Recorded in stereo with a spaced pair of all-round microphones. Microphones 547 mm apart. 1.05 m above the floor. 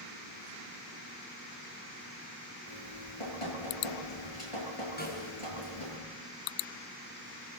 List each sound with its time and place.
2.7 s dripping: 70° left (ahead or behind), 7.5 m
5.0 s a snare drum: 15° left (ahead or behind), 5.5 m